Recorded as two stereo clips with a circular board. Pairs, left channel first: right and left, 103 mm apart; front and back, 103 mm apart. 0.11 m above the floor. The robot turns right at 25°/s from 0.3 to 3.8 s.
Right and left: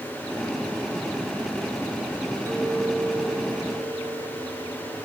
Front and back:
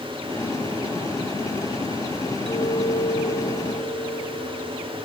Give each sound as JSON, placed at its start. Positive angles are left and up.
{"t": 2.5, "sound": "a clink", "azimuth_deg": 30, "distance_m": 3.0}